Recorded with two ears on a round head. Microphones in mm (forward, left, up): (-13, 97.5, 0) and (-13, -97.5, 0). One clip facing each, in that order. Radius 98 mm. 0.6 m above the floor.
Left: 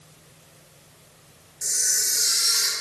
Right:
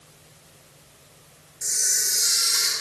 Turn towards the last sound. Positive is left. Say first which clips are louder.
# even
turn(degrees=5)  # may be behind; listen again after turning